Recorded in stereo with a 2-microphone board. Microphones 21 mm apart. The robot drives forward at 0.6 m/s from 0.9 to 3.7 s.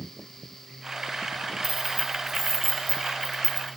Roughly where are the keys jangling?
Centre.